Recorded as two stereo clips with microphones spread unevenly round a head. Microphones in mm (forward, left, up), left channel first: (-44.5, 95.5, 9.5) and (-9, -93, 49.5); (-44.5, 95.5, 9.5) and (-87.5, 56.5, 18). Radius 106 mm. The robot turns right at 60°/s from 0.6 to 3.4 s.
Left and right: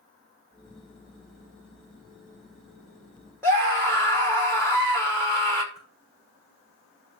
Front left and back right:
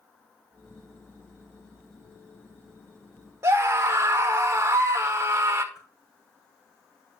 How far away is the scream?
About 1.9 m.